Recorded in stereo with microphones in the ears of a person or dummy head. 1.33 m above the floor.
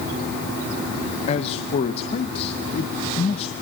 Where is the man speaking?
30° left (ahead or behind), 1.0 m.